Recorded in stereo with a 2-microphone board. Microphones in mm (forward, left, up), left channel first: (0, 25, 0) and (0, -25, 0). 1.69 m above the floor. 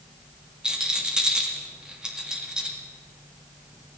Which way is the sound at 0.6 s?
15° right (ahead or behind).